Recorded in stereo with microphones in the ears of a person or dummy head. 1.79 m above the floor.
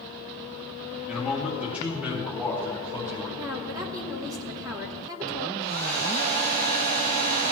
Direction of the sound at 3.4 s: 20° right (ahead or behind).